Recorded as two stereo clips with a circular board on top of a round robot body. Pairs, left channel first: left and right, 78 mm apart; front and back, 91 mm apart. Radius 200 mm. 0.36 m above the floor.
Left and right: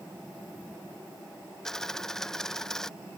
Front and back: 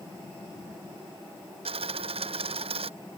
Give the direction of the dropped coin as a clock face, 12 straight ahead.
6 o'clock.